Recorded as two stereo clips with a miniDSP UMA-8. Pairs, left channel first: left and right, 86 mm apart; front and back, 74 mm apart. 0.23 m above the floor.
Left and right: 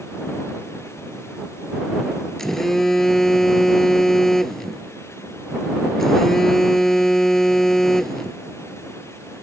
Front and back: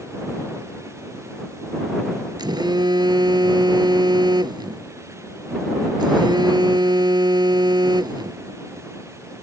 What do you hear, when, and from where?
2.4 s a phone buzzing: 175° left